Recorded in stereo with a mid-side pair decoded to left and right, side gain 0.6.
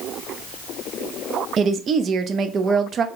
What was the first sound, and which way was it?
A woman speaking, 45° right.